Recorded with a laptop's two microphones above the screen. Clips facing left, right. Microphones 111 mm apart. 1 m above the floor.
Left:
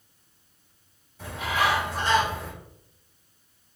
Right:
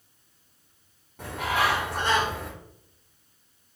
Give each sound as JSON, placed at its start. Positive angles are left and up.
{"t": 1.2, "sound": "a bird", "side_deg": -65, "distance_m": 1.8}